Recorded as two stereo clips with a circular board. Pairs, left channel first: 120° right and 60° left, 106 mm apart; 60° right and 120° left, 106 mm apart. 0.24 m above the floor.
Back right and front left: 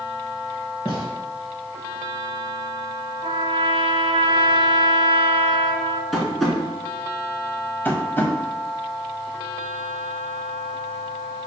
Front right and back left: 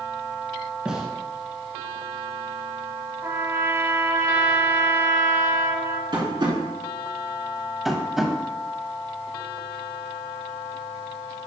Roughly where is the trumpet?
Ahead left.